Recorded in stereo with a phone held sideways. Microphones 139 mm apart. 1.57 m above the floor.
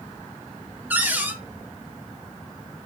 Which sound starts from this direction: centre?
A cupboard door, at 0.9 s.